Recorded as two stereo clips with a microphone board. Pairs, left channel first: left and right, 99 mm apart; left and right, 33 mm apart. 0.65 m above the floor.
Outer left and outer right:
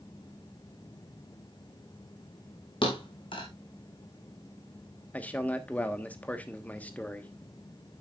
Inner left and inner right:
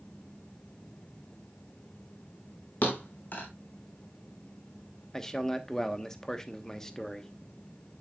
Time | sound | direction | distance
2.8 | a thud | 60° left (ahead or behind) | 2.5 m
5.1 | a man speaking | 15° left (ahead or behind) | 1.2 m